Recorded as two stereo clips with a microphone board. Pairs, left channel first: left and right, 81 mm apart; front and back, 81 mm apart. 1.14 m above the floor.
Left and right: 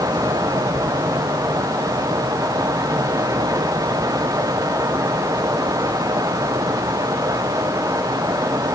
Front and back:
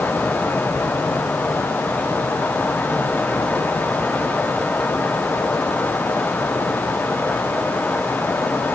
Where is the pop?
I don't hear a pop.